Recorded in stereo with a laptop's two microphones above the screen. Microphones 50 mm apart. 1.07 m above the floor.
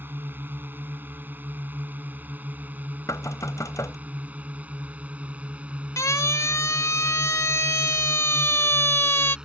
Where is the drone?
40° right (ahead or behind); by 9.5 s 15° right (ahead or behind).